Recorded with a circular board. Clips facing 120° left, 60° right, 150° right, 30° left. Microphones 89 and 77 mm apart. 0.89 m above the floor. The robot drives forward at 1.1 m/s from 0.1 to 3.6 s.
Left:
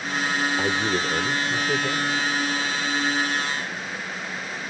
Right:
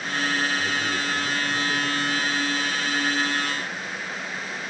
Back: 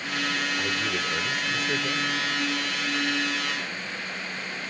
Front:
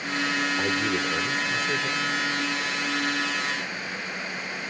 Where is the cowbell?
I don't hear a cowbell.